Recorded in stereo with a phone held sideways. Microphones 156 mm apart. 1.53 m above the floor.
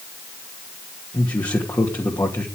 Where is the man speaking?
20° left (ahead or behind), 2.5 m.